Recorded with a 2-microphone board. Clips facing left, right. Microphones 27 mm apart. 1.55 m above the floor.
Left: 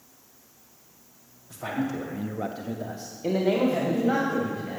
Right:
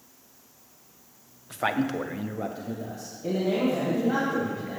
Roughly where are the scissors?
I don't hear scissors.